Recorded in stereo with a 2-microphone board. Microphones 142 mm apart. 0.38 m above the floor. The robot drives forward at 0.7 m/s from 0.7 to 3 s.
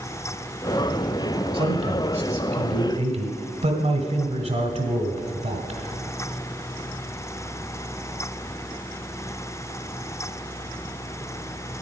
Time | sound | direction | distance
1.5 | a man speaking | 45° right (ahead or behind) | 2.0 m